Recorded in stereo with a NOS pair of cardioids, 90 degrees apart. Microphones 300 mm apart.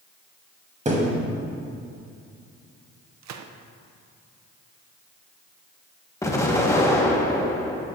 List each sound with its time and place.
0.8 s a thud: 25° right, 3 m
3.2 s a gunshot: 70° right, 0.8 m
6.2 s an explosion: 10° left, 1.8 m